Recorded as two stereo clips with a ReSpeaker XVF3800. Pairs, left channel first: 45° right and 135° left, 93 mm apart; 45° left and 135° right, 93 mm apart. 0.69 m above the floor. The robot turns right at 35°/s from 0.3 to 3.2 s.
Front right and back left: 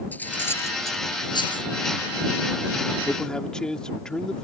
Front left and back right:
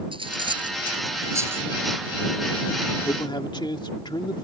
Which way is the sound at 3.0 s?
30° left.